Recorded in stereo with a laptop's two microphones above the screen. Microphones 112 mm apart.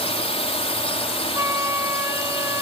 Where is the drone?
65° left (ahead or behind).